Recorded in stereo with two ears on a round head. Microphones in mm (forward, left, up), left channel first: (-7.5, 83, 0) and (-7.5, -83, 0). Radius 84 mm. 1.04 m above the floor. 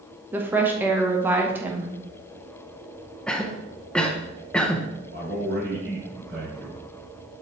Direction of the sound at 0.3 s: 10° right (ahead or behind).